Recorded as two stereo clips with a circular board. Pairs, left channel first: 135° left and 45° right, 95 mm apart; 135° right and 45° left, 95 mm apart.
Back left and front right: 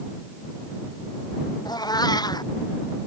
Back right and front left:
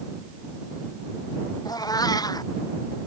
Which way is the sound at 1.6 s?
Straight behind.